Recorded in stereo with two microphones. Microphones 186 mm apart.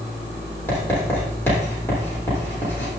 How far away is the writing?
About 6.5 m.